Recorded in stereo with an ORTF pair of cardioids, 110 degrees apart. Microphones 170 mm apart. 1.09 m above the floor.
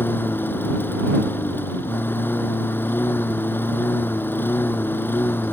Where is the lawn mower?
10° left.